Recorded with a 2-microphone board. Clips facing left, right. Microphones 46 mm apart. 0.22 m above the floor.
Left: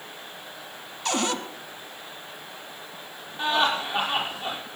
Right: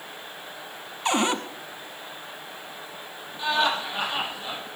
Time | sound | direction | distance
1.1 | a cupboard door | 25° right (ahead or behind) | 1.1 m
3.4 | laughter | 30° left (ahead or behind) | 7.5 m